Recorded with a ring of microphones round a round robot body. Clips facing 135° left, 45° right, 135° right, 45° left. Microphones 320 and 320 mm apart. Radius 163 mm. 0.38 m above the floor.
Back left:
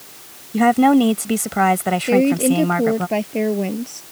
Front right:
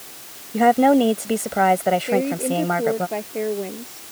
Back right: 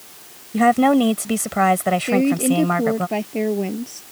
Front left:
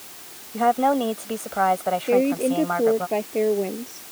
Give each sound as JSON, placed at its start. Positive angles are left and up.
{"t": 0.5, "sound": "a woman speaking", "azimuth_deg": -160}
{"t": 2.1, "sound": "a woman speaking", "azimuth_deg": 170}